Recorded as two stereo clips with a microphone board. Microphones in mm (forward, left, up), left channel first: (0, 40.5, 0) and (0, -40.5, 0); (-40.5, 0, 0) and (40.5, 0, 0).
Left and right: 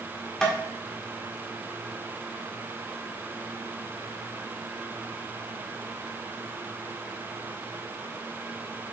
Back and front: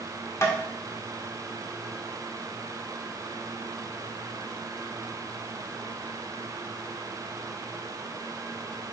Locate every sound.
0.4 s tapping: 165° left, 1.7 m